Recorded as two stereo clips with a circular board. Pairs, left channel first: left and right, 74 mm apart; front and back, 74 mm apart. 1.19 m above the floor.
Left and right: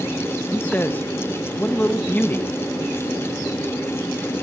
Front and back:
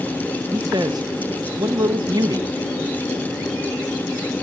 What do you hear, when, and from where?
0.5 s a man speaking: 155° left, 0.9 m